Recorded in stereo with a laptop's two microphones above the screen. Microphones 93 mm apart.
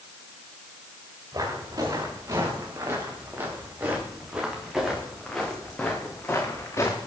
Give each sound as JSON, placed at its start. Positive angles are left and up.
{"t": 1.3, "sound": "footsteps", "side_deg": -40, "distance_m": 7.5}